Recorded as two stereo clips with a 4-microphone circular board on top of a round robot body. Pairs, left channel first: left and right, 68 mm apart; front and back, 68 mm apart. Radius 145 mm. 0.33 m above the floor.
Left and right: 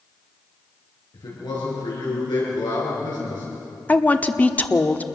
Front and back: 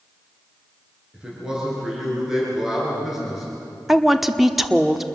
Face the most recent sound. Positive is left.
turn(degrees=100)